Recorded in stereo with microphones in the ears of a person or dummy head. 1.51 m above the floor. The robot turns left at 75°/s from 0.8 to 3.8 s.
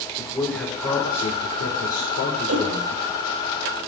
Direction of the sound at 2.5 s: 80° right.